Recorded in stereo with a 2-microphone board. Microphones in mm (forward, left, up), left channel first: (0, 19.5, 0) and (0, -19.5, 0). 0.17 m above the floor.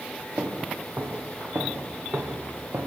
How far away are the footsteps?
About 3 m.